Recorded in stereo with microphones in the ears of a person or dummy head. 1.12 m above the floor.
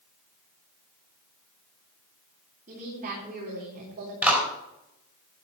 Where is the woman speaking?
40° right (ahead or behind), 3.5 m.